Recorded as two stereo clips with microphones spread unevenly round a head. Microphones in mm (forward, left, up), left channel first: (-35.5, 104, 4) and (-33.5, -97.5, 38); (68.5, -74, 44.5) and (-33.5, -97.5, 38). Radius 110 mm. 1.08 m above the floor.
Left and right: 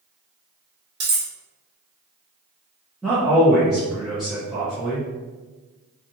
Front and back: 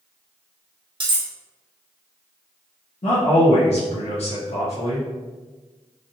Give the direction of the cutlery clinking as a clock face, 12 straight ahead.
4 o'clock.